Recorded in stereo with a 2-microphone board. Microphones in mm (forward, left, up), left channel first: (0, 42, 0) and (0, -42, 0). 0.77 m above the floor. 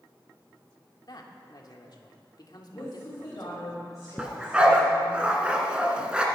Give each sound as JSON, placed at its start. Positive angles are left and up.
{"t": 1.1, "sound": "a man speaking", "side_deg": 55, "distance_m": 1.9}
{"t": 2.7, "sound": "a woman speaking", "side_deg": 40, "distance_m": 4.0}
{"t": 4.2, "sound": "a dog barking", "side_deg": -15, "distance_m": 1.9}